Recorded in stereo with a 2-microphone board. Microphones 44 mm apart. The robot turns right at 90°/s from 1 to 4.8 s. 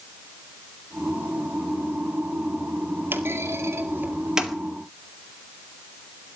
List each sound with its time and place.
3.1 s a clunk: 50° right (ahead or behind), 2 m; by 4.5 s centre (ahead or behind), 2 m